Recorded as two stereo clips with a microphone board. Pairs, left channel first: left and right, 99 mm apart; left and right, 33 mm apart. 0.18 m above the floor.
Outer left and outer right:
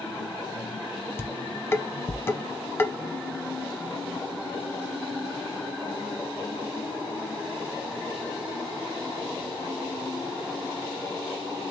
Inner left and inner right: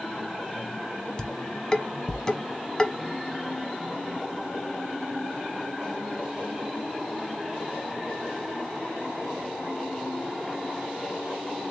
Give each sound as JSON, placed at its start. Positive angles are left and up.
{"t": 1.2, "sound": "dishes clattering", "side_deg": 25, "distance_m": 0.7}